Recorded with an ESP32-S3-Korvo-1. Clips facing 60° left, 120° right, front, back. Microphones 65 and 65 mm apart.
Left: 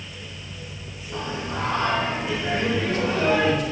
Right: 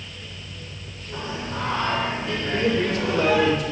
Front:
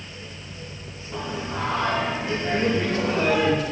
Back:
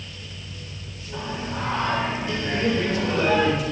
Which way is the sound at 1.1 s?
5° right.